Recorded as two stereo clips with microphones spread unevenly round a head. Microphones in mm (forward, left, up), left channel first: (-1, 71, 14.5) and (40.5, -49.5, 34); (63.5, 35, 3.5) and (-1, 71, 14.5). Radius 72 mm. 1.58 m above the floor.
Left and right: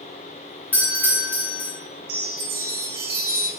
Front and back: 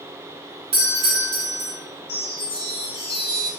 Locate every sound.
0.7 s a doorbell: 175° right, 0.6 m
2.1 s a chime: 55° right, 0.5 m